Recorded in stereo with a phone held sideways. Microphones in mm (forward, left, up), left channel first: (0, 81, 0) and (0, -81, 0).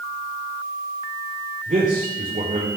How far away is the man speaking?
About 3 m.